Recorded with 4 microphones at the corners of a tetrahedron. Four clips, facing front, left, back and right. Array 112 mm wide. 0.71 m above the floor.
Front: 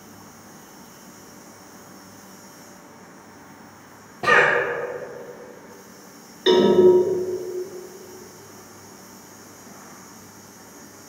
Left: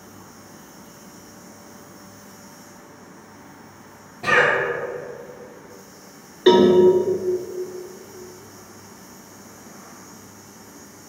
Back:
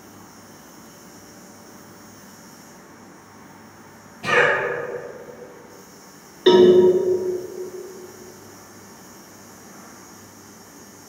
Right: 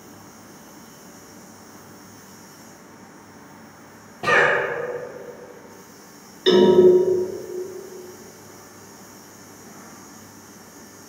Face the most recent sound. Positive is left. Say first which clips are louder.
# left 1 dB, back 4 dB
turn(degrees=125)